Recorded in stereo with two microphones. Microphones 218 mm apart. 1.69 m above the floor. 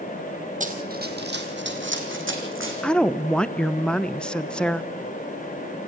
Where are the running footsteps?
35° right (ahead or behind), 2.5 m; by 2.7 s 70° right (ahead or behind), 4.5 m.